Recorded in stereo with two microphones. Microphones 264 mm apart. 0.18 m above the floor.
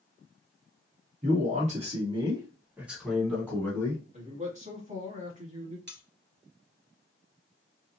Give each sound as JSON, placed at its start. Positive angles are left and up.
{"t": 1.2, "sound": "a man speaking", "side_deg": -30, "distance_m": 1.6}
{"t": 4.1, "sound": "a man speaking", "side_deg": -25, "distance_m": 1.3}
{"t": 5.9, "sound": "cutlery clinking", "side_deg": -40, "distance_m": 1.0}